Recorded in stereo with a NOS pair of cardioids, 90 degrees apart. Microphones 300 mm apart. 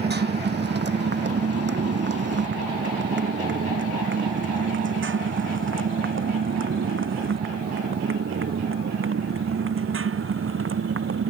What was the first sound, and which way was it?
A motorcycle, 35° right.